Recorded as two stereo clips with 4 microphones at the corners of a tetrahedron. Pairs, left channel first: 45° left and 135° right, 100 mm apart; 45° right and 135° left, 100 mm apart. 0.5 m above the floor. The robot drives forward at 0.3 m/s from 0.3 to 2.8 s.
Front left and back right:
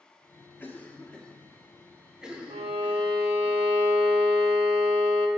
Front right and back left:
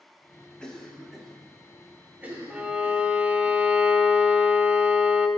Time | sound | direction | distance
0.6 | a cough | 25° left | 0.8 m
2.5 | a violin | 145° right | 0.5 m